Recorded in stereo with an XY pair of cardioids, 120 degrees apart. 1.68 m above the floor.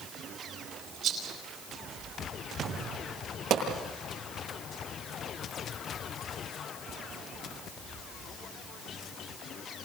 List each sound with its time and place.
1.0 s a rattle: 55° right, 9.5 m
3.5 s a pop: 65° right, 9 m